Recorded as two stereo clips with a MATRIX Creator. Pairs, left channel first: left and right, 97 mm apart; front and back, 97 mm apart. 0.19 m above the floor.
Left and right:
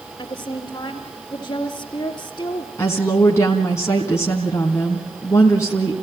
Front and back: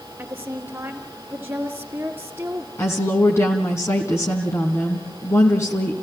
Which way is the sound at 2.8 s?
45° left.